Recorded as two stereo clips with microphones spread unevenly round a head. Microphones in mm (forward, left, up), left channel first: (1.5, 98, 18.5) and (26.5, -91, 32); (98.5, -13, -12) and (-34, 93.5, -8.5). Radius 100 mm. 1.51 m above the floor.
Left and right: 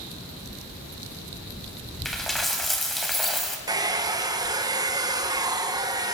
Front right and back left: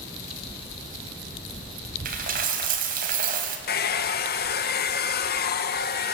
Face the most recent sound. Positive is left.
turn(degrees=-10)